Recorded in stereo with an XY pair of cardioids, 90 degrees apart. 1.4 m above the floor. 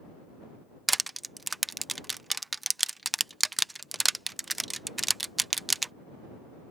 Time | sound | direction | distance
0.9 | crushing | 15° right | ?